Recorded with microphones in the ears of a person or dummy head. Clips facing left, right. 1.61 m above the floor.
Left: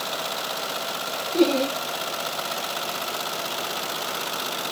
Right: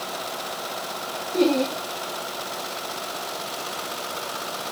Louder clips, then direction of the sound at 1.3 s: Even; centre (ahead or behind).